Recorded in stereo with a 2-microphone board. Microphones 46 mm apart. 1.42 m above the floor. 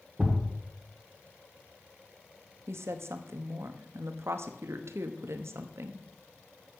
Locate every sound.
0.2 s a thud: 15° right (ahead or behind), 1.9 m
2.7 s a woman speaking: 65° right (ahead or behind), 0.9 m